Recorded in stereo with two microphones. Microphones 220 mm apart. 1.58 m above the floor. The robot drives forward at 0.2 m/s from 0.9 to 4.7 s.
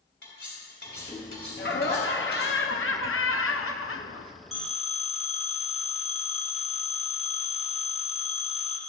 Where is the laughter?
55° left (ahead or behind), 0.8 m; by 4.3 s 80° left, 0.7 m.